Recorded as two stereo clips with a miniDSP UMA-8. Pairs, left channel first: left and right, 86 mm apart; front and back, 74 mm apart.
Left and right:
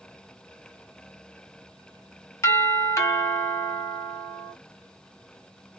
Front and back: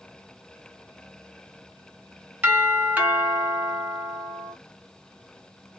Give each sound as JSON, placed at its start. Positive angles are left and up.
{"t": 2.4, "sound": "a doorbell", "azimuth_deg": 125, "distance_m": 2.5}